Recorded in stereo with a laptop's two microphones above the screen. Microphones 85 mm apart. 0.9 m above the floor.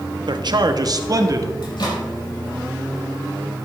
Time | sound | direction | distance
0.3 | a man speaking | 65° right (ahead or behind) | 0.9 m
1.6 | a microwave | 65° left (ahead or behind) | 4.5 m